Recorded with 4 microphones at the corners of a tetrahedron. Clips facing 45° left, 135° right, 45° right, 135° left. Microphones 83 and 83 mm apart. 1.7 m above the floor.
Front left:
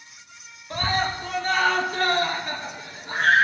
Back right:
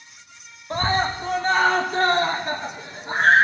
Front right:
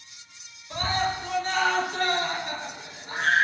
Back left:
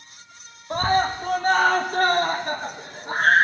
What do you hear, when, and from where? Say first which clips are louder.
0.7 s a scream: back right 3 dB, back left 6 dB; 170° left, 0.7 m